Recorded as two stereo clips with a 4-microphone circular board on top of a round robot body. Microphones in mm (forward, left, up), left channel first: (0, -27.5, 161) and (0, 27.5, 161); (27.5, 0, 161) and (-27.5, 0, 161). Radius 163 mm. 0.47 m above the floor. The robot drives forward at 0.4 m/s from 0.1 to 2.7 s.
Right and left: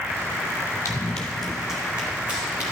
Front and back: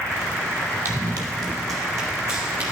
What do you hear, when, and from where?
0.8 s running footsteps: 130° right, 0.8 m; by 2.7 s 155° left, 2.5 m